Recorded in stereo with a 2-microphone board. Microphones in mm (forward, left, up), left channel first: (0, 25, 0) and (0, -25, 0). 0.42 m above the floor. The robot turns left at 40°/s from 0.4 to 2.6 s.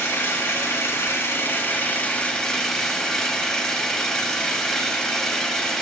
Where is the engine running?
100° left, 1.8 m; by 5.8 s 10° left, 1.8 m.